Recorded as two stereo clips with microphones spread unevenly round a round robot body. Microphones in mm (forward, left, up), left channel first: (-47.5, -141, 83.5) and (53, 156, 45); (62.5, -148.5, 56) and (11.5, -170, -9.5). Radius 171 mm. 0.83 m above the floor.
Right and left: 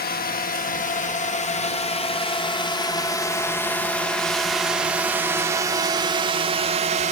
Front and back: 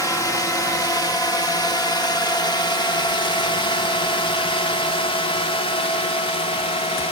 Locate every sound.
0.0 s a drone: 50° right; by 7.1 s 50° left